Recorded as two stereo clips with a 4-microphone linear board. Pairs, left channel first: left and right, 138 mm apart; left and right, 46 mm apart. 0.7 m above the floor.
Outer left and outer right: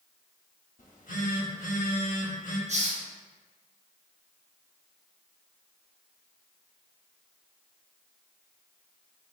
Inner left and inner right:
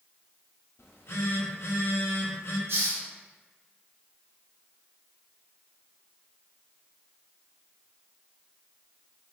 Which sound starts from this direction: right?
A hiss, at 2.7 s.